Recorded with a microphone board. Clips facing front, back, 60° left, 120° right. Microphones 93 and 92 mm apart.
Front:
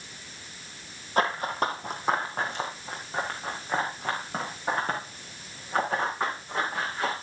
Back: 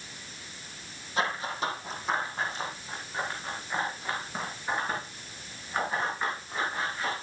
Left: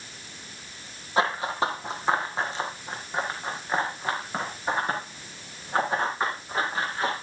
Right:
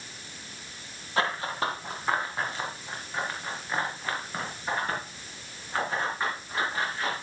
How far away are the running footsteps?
About 1.7 m.